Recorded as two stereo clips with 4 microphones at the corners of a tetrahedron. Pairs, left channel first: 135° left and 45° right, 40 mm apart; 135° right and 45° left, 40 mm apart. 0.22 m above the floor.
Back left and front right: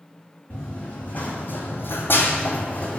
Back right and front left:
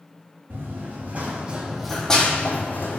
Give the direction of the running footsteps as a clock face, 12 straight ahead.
10 o'clock.